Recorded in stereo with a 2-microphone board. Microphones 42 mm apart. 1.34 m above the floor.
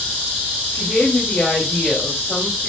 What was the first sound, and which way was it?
A woman speaking, 40° left (ahead or behind).